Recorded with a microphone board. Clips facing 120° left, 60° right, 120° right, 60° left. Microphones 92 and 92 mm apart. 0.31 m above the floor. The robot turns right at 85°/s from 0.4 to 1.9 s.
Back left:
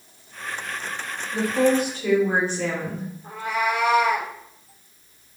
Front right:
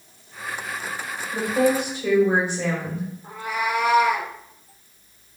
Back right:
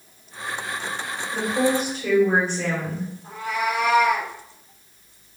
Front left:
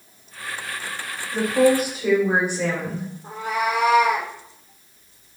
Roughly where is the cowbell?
I don't hear a cowbell.